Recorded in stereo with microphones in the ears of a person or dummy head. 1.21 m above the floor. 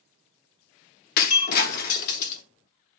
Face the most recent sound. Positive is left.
turn(degrees=50)  # may be behind; listen again after turning